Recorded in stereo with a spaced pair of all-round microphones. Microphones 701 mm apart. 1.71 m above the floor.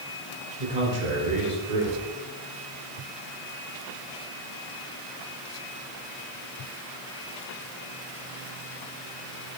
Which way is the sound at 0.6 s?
75° right (ahead or behind).